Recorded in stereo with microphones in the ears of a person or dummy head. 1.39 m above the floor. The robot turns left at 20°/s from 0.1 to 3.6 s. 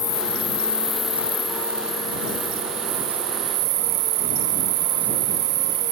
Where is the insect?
15° left; by 5.9 s 55° right.